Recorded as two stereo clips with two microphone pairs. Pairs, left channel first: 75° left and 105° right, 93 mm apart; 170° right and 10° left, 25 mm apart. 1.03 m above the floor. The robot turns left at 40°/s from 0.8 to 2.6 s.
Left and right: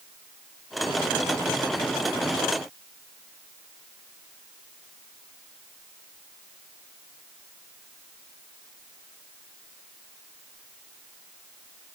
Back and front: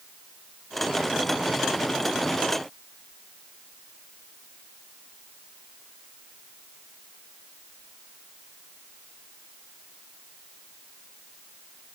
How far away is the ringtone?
No ringtone in this recording.